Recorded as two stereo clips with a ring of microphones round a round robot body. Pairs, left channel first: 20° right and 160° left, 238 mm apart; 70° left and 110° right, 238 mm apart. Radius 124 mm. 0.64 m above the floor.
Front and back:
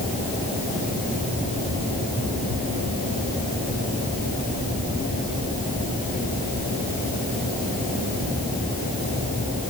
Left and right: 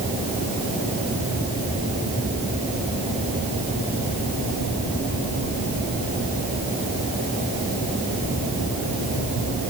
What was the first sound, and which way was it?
Only background noise.